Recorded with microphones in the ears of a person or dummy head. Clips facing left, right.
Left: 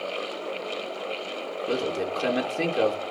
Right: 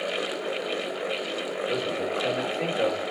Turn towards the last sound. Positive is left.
turn(degrees=60)  # may be behind; listen again after turning